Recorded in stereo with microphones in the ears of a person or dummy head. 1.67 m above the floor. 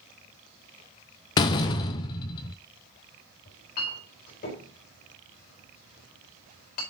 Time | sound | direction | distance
1.4 | a door slam | 25° left (ahead or behind) | 0.6 m
3.5 | a clink | 55° left (ahead or behind) | 4 m